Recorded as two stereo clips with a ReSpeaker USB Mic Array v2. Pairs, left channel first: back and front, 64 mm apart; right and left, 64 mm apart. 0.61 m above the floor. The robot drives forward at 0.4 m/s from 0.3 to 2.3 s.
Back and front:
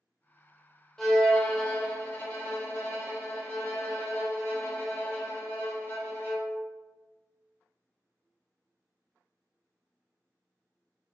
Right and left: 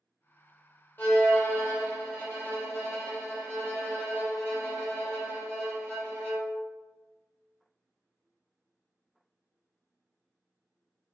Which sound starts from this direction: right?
A violin, at 1.0 s.